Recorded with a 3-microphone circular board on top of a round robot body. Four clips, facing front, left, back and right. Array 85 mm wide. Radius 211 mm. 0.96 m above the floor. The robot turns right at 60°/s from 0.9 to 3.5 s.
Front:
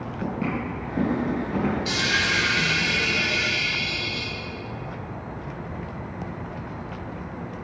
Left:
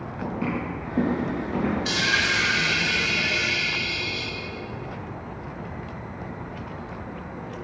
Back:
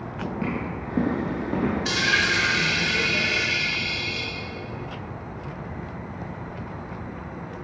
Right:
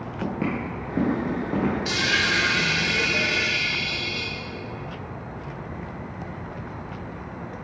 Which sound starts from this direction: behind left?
A dropped coin, at 1.9 s.